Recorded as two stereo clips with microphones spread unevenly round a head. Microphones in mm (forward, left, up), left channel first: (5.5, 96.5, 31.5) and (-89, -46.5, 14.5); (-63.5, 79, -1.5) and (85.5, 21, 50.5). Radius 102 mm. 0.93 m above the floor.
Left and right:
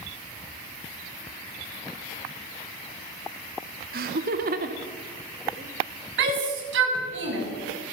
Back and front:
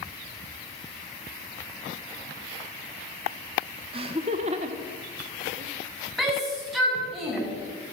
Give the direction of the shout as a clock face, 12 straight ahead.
4 o'clock.